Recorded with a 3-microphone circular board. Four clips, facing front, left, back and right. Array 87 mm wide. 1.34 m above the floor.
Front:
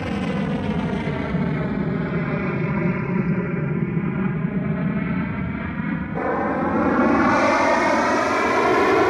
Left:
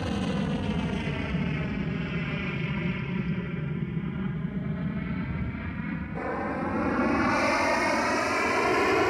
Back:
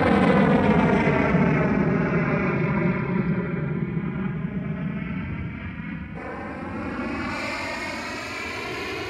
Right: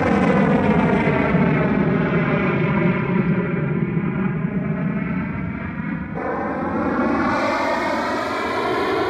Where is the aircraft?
125° right; by 9.1 s 15° right.